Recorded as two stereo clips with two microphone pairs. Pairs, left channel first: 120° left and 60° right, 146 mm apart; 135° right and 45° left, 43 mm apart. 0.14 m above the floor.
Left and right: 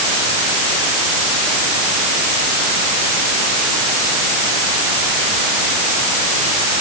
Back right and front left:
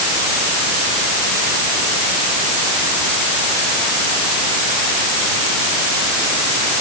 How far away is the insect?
No insect in this recording.